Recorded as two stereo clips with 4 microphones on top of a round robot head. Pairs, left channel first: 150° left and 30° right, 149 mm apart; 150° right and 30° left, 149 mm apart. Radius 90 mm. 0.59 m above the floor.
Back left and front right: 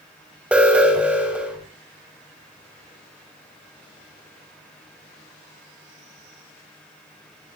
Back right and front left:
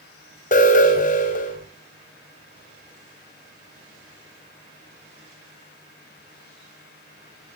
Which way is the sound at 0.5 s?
115° right.